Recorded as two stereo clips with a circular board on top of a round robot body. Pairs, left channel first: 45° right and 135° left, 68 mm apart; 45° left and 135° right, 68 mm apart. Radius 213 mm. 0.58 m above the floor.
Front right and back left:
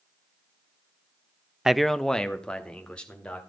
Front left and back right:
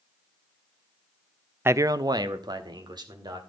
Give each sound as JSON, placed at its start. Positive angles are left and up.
{"t": 1.6, "sound": "a man speaking", "azimuth_deg": -150, "distance_m": 0.6}